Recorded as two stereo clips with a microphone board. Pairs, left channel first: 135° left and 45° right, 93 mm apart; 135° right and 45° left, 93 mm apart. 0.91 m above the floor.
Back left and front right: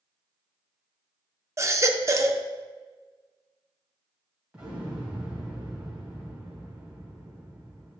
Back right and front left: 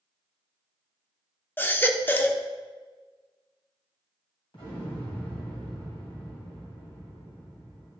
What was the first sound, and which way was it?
A baby crying, 80° right.